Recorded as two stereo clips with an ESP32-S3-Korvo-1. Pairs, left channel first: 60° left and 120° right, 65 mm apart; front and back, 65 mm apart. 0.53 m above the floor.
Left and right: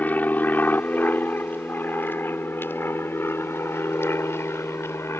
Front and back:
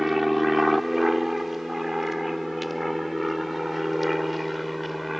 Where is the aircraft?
95° left; by 5.2 s 90° left.